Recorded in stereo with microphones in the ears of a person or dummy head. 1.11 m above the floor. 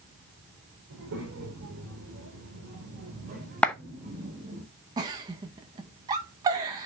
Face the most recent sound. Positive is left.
turn(degrees=-20)  # may be behind; listen again after turning